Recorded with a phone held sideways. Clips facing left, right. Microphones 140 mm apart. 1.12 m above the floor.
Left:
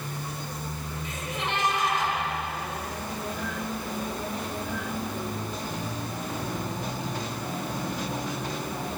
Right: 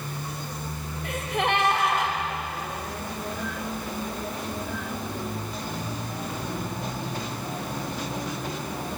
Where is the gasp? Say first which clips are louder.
Right 8 dB; 65° right (ahead or behind), 5.5 m.